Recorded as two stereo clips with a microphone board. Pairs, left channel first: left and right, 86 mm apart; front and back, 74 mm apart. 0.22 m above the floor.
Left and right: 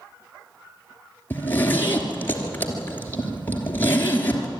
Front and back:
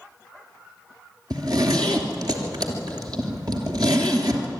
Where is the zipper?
155° left, 3 m.